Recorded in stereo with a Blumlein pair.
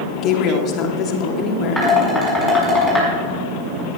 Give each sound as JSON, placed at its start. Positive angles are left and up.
{"t": 0.2, "sound": "a woman speaking", "azimuth_deg": 35, "distance_m": 2.5}
{"t": 1.8, "sound": "dishes clattering", "azimuth_deg": 0, "distance_m": 7.0}